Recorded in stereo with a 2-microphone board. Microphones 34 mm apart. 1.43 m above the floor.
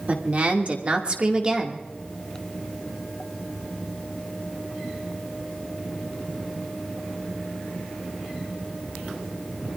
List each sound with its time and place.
0.1 s a woman speaking: 45° right (ahead or behind), 2.5 m; by 1.9 s 20° right (ahead or behind), 2 m